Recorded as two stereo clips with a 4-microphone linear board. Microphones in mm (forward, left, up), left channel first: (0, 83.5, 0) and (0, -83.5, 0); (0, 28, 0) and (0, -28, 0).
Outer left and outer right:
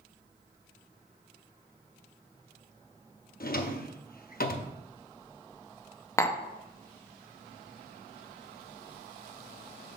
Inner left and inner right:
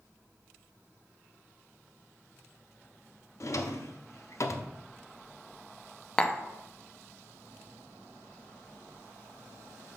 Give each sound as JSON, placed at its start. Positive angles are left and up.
{"t": 3.4, "sound": "a drawer", "side_deg": 60, "distance_m": 0.6}
{"t": 6.2, "sound": "tapping", "side_deg": 15, "distance_m": 0.5}